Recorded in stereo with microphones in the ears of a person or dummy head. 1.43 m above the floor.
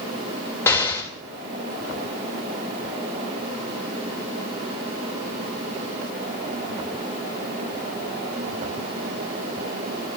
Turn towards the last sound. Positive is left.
turn(degrees=15)  # may be behind; listen again after turning